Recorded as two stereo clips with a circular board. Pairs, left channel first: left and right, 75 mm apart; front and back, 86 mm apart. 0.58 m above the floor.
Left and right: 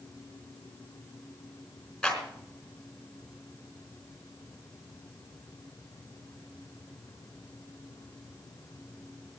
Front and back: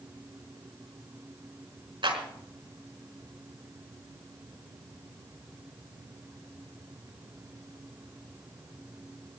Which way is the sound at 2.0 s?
170° left.